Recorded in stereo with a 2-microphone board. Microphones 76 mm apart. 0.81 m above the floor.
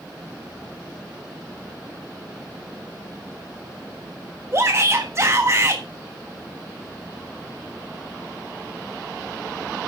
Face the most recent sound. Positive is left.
turn(degrees=-40)  # may be behind; listen again after turning